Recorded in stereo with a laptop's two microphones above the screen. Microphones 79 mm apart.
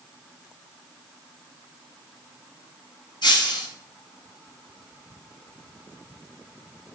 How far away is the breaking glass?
About 3 m.